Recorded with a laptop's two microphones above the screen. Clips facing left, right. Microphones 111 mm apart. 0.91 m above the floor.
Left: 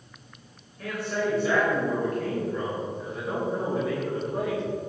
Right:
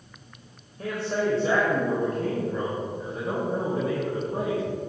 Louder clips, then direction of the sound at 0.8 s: Right 2 dB; 30° right (ahead or behind).